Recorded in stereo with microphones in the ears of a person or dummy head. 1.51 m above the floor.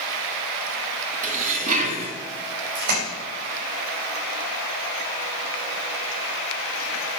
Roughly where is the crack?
No crack in this recording.